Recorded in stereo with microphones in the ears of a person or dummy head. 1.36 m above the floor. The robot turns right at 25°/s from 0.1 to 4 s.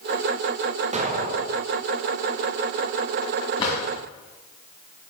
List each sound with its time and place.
0.9 s an explosion: 30° right (ahead or behind), 0.6 m; by 1.6 s 50° right (ahead or behind), 0.6 m
3.6 s a drawer: 25° left (ahead or behind), 2.5 m; by 3.8 s 30° left (ahead or behind), 2.5 m